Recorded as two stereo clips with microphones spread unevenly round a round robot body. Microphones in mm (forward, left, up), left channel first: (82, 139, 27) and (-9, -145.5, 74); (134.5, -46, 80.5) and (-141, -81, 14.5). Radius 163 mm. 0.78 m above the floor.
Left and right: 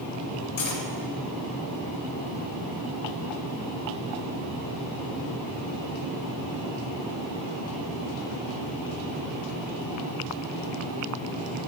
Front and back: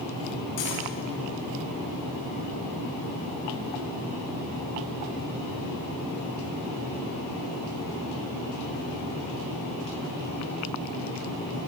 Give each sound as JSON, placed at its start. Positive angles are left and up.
{"t": 0.6, "sound": "cutlery clinking", "azimuth_deg": 40, "distance_m": 2.0}